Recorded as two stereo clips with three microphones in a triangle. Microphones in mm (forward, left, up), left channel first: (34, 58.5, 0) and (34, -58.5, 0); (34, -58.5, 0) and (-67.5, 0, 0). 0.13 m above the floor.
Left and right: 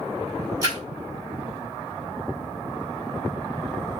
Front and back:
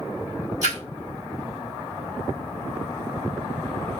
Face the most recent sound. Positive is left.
turn(degrees=-155)